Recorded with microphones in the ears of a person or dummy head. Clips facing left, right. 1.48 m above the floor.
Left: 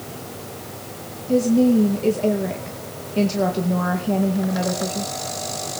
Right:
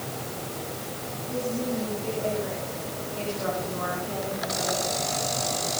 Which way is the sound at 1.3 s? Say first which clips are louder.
Left 14 dB; 85° left.